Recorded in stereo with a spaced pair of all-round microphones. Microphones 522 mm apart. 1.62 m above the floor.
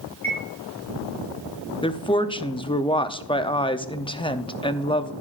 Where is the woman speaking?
10° left (ahead or behind), 0.5 m.